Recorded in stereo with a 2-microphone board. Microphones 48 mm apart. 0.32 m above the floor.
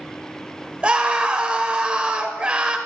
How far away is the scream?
About 1.0 m.